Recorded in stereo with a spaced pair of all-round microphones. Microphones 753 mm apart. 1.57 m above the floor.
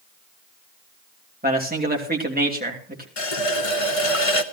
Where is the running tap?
45° left (ahead or behind), 1.0 m.